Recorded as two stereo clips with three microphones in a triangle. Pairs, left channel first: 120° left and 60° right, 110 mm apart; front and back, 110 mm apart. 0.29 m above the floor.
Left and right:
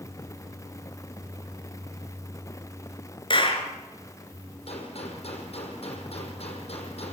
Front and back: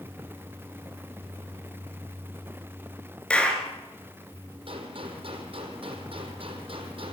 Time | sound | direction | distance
3.3 | a clap | 80° left | 3 m
4.7 | a gunshot | 145° left | 5 m